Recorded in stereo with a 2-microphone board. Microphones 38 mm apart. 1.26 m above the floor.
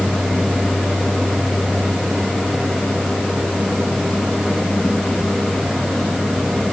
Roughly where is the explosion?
I don't hear an explosion.